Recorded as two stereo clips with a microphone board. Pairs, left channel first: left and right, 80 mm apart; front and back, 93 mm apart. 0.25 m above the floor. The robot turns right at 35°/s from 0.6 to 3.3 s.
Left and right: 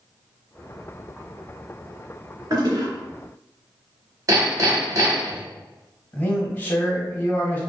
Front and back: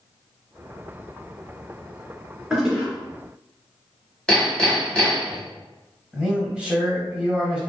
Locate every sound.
2.5 s a toilet flushing: 100° right, 1.8 m; by 2.9 s 90° right, 1.8 m
4.3 s hammering: 75° right, 1.1 m
6.1 s a man speaking: 115° left, 1.1 m